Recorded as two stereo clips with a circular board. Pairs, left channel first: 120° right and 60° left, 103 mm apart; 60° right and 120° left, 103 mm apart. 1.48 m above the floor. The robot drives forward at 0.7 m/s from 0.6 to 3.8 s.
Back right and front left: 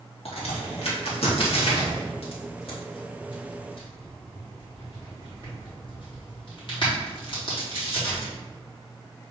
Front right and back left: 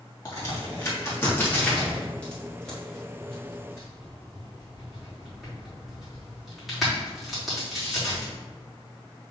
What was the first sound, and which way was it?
A crack, 115° right.